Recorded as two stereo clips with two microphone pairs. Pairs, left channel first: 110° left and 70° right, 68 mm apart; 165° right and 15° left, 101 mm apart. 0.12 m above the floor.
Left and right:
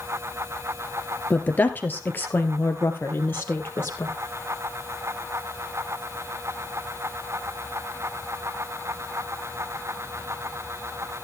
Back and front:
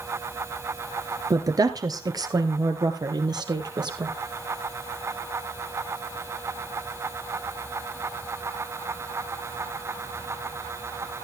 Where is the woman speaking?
50° left, 1.7 m; by 4.1 s 55° left, 3 m.